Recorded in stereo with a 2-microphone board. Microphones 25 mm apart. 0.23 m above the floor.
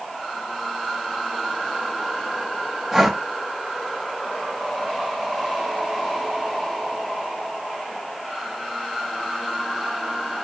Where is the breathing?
10° right (ahead or behind), 0.7 m.